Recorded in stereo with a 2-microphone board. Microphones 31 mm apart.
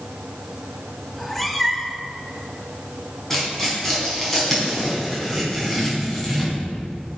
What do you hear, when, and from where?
1.1 s a cat meowing: 5° left (ahead or behind), 1.0 m
3.3 s tearing paper: 5° left (ahead or behind), 4 m